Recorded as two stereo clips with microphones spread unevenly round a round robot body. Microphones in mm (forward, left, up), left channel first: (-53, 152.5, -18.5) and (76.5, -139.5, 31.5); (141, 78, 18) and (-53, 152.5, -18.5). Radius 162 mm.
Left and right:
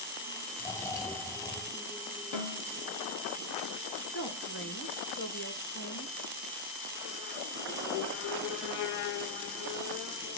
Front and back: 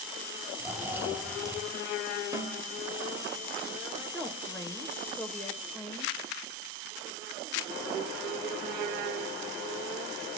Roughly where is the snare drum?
Left.